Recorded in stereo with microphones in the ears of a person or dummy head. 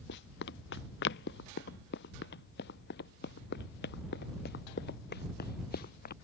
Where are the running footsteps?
65° left (ahead or behind); by 6.1 s 50° left (ahead or behind).